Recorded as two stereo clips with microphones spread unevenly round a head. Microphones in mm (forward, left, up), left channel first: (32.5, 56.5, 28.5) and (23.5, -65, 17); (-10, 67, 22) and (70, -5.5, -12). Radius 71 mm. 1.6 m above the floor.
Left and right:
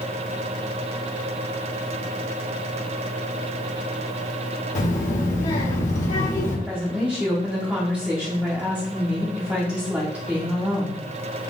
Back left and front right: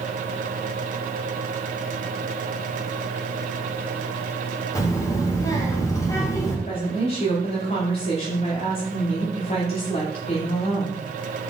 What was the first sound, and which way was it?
A child speaking, 95° left.